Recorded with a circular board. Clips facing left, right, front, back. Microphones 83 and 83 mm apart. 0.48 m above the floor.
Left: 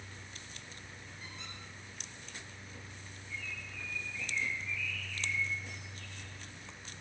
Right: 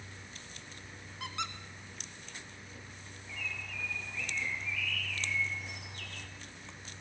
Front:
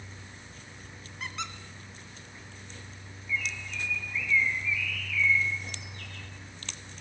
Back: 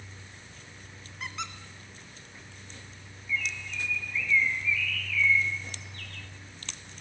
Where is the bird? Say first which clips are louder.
Right 3 dB, back 1 dB; 80° right, 3 m.